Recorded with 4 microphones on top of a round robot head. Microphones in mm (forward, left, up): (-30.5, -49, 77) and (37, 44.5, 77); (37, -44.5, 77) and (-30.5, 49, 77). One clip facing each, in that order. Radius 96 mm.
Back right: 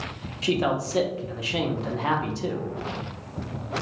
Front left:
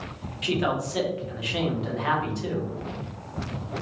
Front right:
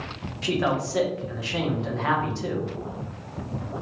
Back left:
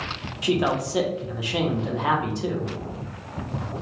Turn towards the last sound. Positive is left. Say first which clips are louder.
# back right 2 dB, back left 2 dB
turn(degrees=-165)